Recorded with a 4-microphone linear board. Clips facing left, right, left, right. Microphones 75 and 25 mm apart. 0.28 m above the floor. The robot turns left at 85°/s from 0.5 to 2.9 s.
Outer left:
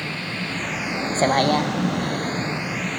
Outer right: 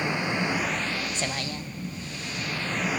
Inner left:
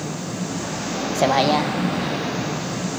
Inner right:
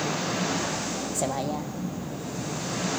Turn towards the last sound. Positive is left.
turn(degrees=-5)